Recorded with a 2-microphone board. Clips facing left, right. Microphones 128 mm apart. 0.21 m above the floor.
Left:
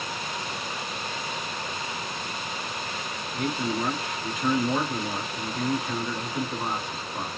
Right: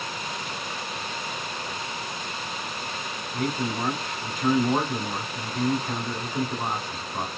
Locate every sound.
3.3 s a man speaking: 40° right (ahead or behind), 1.2 m